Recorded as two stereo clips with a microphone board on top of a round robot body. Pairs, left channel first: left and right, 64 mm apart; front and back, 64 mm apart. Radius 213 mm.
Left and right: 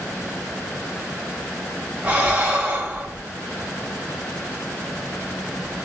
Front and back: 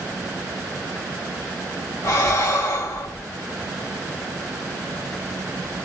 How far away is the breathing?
About 3 m.